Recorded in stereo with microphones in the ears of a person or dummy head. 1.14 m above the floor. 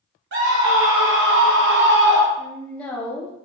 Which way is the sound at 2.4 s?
10° left (ahead or behind).